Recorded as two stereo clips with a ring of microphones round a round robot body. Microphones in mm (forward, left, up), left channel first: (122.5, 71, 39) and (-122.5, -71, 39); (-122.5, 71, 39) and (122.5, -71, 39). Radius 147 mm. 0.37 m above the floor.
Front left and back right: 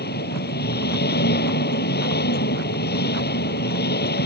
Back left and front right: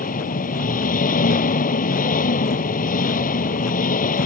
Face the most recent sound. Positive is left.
turn(degrees=85)